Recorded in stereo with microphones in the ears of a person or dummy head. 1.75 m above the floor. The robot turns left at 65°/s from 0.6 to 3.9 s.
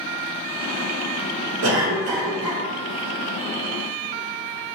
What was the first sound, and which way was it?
A cough, 95° right.